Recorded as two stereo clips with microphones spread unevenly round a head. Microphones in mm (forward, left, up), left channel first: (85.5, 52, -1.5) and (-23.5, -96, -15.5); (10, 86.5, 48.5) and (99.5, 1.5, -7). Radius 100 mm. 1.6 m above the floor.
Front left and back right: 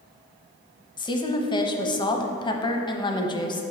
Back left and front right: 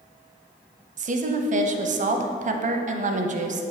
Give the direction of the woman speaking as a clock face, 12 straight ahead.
12 o'clock.